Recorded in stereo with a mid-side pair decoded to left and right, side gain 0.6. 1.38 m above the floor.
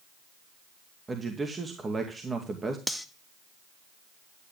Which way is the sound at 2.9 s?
5° right.